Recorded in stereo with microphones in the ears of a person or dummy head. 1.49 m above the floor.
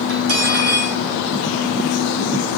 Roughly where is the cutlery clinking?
Right.